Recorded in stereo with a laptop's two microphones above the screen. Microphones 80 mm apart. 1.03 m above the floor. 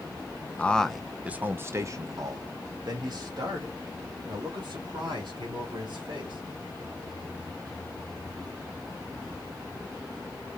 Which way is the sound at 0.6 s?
15° left (ahead or behind).